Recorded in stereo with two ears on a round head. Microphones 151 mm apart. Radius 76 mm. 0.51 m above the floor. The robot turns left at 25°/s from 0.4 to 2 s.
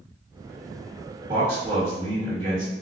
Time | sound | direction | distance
1.3 | a man speaking | 35° right (ahead or behind) | 1.7 m